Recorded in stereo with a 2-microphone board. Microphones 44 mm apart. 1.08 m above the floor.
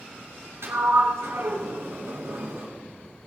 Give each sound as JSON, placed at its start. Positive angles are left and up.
{"t": 0.6, "sound": "a sliding door", "side_deg": -80, "distance_m": 2.0}